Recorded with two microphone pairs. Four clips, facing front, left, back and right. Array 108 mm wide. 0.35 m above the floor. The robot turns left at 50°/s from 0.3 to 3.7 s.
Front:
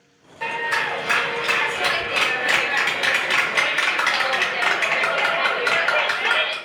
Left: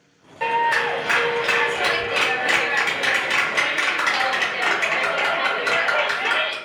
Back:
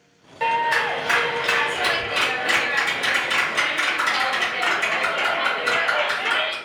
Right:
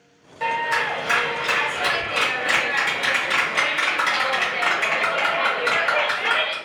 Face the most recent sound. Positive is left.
turn(degrees=0)